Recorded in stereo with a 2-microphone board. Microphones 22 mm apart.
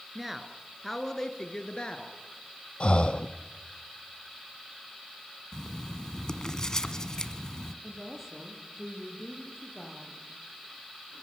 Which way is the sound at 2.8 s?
50° left (ahead or behind).